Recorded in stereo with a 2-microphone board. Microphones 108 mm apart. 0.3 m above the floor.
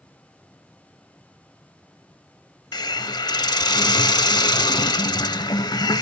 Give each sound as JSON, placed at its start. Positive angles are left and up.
{"t": 2.7, "sound": "a hiss", "side_deg": 40, "distance_m": 0.5}